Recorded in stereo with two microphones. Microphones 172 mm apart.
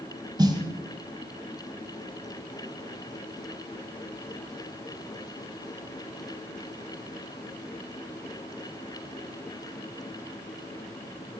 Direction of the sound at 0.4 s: 25° right (ahead or behind).